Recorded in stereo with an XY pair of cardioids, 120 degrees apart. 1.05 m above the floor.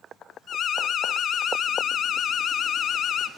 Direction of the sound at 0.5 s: 50° left.